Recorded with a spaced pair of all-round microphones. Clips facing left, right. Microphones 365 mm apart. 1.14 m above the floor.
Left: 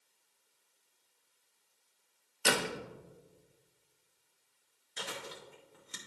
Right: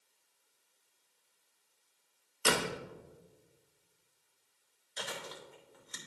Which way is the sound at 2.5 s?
10° right (ahead or behind).